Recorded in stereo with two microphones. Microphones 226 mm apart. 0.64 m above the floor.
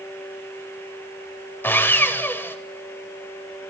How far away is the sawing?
About 0.9 m.